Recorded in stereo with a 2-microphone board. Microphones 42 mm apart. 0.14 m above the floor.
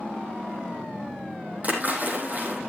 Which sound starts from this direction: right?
A splash, at 1.6 s.